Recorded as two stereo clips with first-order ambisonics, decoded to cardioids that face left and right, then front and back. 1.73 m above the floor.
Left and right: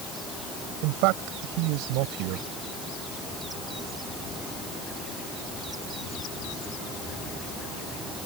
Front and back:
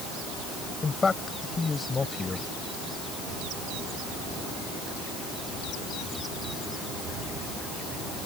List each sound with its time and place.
0.8 s a man speaking: 75° right